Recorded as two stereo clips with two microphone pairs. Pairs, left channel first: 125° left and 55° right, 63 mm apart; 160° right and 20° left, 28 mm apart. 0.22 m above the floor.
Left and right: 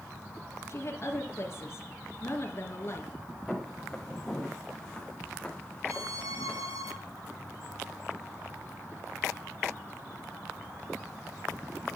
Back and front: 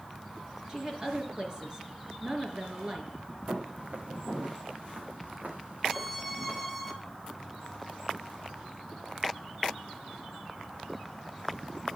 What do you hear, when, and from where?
0.7 s a woman speaking: 80° left, 4 m
3.5 s footsteps: 35° left, 7 m; by 6.6 s 50° left, 6 m
5.9 s a violin: 65° right, 4.5 m